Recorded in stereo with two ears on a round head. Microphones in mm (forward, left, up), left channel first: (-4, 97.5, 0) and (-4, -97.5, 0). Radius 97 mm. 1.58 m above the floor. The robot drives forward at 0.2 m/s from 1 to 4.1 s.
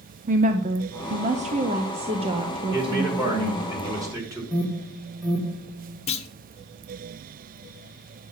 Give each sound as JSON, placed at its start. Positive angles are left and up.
{"t": 0.3, "sound": "a woman speaking", "side_deg": -35, "distance_m": 0.7}
{"t": 2.7, "sound": "a man speaking", "side_deg": -15, "distance_m": 4.0}
{"t": 4.5, "sound": "an alarm", "side_deg": 0, "distance_m": 1.8}
{"t": 6.1, "sound": "a clunk", "side_deg": 30, "distance_m": 1.0}